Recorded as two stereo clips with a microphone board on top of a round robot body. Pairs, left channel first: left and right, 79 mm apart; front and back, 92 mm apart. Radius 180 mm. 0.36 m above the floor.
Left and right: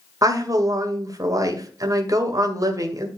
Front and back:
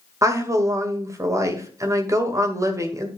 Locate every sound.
0.2 s a woman speaking: 125° right, 2 m